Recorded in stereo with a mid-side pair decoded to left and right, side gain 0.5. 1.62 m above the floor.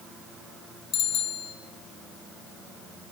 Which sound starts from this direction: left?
A bicycle bell, at 0.9 s.